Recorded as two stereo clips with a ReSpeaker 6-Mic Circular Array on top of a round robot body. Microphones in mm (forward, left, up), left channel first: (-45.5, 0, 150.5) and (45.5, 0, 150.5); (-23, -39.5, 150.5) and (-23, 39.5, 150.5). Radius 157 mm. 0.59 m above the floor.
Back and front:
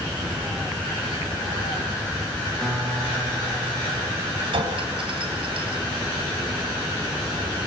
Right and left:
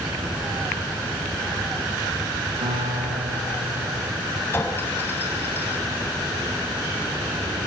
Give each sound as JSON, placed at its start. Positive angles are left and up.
{"t": 2.6, "sound": "a guitar", "azimuth_deg": 95, "distance_m": 5.0}
{"t": 4.5, "sound": "a clink", "azimuth_deg": -25, "distance_m": 3.0}